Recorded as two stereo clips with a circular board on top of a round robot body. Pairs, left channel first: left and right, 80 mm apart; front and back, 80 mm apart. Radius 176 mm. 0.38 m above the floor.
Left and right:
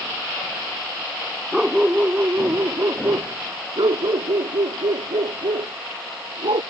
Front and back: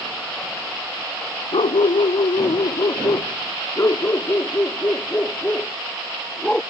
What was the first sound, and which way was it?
A dog barking, 5° right.